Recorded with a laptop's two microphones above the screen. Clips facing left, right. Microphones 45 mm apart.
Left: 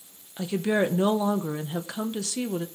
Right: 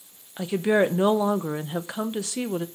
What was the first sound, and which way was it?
A woman speaking, 20° right (ahead or behind).